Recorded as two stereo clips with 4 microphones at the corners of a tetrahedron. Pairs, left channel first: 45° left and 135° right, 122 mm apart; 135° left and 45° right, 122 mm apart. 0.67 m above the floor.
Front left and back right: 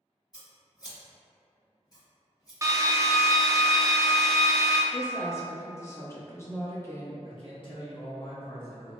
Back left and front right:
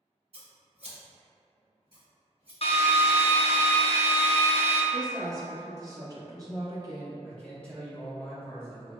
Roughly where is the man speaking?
Ahead left.